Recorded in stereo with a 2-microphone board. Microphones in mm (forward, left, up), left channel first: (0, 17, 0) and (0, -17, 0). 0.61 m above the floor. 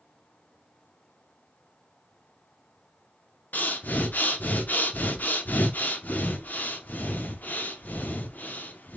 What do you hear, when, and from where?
3.5 s breathing: 55° left (ahead or behind), 0.6 m